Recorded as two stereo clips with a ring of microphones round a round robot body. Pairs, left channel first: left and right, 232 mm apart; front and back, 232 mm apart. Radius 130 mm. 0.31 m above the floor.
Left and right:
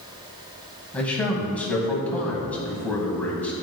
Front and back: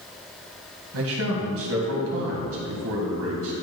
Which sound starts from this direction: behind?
A man speaking, at 0.9 s.